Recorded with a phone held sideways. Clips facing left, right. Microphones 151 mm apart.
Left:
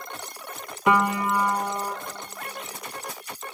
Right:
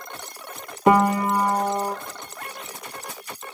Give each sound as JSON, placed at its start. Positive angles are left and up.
{"t": 0.9, "sound": "a piano", "side_deg": -35, "distance_m": 0.7}